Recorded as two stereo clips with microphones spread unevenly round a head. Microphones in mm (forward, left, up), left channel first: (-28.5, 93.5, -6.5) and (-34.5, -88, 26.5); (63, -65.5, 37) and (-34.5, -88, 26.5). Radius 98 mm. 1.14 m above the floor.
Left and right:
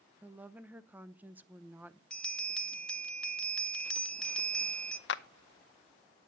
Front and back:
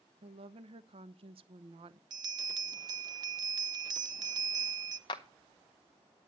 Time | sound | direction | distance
0.2 | a woman speaking | 175° right | 0.8 m
2.1 | a bell | 165° left | 0.9 m
5.1 | a clap | 70° left | 0.7 m